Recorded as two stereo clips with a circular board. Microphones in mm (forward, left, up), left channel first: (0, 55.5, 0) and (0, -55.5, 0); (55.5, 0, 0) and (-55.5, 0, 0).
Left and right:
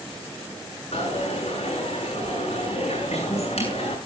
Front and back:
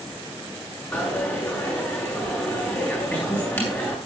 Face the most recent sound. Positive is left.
turn(degrees=70)